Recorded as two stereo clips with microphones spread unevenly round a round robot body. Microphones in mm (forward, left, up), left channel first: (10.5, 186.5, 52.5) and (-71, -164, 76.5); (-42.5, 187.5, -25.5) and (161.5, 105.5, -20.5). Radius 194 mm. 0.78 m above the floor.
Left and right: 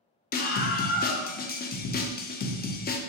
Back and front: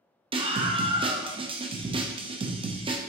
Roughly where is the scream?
Ahead left.